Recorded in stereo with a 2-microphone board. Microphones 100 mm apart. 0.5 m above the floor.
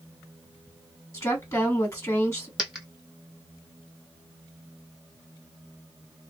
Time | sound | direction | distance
1.1 | a woman speaking | 30° left (ahead or behind) | 1.6 m
2.6 | a dropped coin | centre (ahead or behind) | 1.3 m